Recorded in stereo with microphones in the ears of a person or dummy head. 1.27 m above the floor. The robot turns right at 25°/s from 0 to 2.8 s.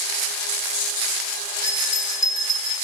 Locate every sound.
1.6 s a bell: 50° left (ahead or behind), 0.7 m; by 2.8 s 25° left (ahead or behind), 0.7 m